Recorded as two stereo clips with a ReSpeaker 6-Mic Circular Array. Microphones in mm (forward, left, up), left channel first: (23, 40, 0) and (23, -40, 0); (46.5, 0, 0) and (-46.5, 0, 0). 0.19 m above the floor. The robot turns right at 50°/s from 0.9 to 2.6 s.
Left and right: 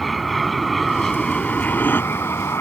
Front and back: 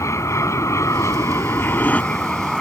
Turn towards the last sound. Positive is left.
turn(degrees=85)